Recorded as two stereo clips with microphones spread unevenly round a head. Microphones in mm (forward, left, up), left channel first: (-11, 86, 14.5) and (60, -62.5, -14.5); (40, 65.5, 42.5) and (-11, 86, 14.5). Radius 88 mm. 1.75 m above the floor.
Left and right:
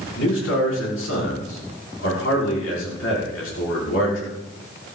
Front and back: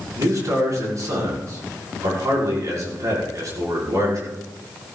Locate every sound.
0.2 s a man speaking: 135° left, 6.5 m